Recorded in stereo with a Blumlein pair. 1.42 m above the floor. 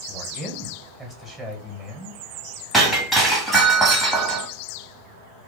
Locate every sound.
0.1 s a man speaking: 5° right, 1.5 m
2.7 s breaking glass: 5° right, 1.7 m